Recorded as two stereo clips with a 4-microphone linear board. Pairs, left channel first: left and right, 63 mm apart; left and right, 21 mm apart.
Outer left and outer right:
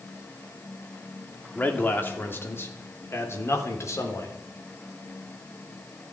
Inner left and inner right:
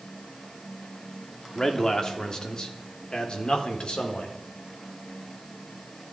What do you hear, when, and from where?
1.6 s a man speaking: 25° left (ahead or behind), 3 m; by 4.3 s 55° left (ahead or behind), 4 m